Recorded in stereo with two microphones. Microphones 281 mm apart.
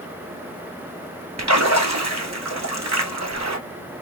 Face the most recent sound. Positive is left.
turn(degrees=-65)  # may be behind; listen again after turning